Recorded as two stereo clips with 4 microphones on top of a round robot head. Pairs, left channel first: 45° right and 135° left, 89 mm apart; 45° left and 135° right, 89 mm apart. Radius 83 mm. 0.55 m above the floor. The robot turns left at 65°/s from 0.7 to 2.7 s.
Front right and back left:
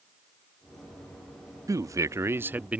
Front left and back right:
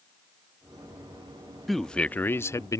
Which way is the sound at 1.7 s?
135° left.